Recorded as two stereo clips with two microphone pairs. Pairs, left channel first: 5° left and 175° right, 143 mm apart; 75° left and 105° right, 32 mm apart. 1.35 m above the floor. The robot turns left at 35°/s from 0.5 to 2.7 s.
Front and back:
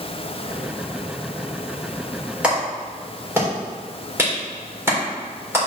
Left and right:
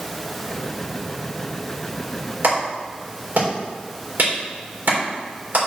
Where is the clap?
95° right, 4 m; by 5.6 s 105° right, 4 m.